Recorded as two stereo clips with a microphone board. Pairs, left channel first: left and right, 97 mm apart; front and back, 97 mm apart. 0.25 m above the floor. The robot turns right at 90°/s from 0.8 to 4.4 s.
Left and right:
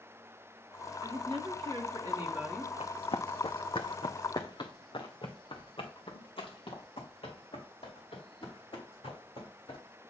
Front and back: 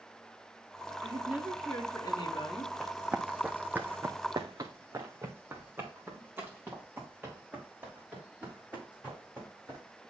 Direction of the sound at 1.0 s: 140° right.